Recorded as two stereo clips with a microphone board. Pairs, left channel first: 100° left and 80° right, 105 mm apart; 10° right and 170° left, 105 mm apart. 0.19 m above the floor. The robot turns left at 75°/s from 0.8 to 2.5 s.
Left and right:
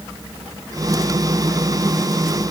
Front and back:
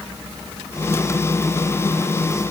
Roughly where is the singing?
No singing in this recording.